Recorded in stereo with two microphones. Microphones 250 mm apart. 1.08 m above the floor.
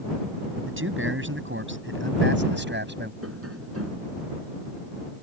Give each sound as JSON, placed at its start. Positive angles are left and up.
{"t": 0.7, "sound": "a man speaking", "side_deg": -55}
{"t": 3.2, "sound": "tapping", "side_deg": -65}